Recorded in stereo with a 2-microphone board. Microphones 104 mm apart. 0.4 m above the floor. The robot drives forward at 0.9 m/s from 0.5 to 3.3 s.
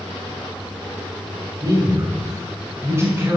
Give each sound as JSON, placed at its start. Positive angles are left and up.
{"t": 1.6, "sound": "a man speaking", "side_deg": -35, "distance_m": 2.0}